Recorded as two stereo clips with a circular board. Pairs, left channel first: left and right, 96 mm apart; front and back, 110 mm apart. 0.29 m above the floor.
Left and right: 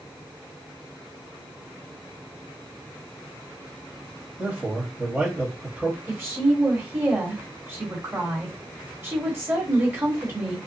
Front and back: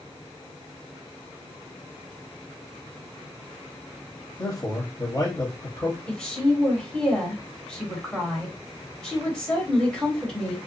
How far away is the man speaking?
About 1.1 m.